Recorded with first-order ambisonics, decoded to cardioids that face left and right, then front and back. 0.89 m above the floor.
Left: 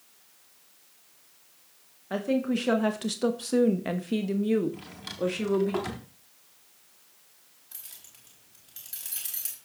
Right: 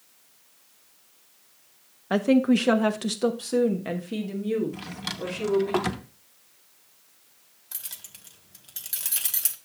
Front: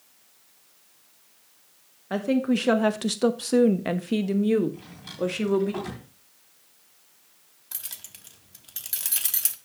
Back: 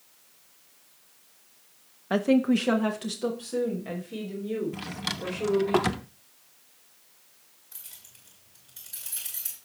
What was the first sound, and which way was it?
A woman speaking, 115° right.